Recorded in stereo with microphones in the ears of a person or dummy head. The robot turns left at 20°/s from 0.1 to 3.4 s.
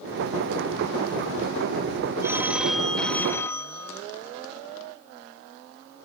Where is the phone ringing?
15° right (ahead or behind); by 4.0 s 10° left (ahead or behind).